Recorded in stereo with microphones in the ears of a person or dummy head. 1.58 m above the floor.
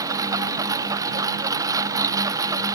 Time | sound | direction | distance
0.0 | a lawn mower | 20° right (ahead or behind) | ?